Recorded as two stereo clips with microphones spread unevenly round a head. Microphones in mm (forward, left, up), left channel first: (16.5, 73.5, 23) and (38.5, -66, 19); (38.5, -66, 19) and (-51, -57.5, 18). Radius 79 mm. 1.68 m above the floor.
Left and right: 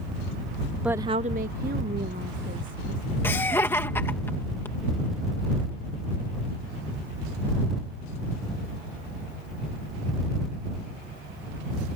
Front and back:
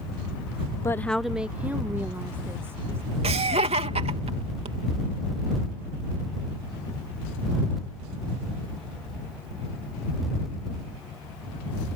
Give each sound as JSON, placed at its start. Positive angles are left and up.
{"t": 0.8, "sound": "a woman speaking", "azimuth_deg": 0}
{"t": 3.2, "sound": "laughter", "azimuth_deg": 175}